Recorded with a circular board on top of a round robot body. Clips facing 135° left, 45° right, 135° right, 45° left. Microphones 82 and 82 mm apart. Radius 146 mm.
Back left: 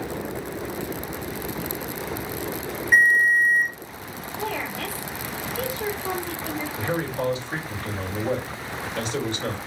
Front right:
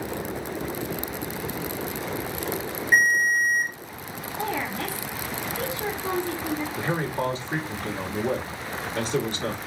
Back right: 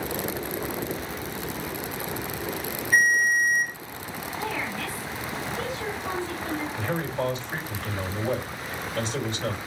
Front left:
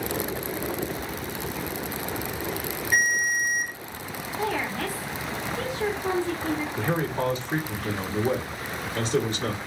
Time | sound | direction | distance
2.9 | a ringtone | 25° left | 1.3 m
4.4 | a woman speaking | 10° left | 2 m
6.8 | a man speaking | 5° left | 2 m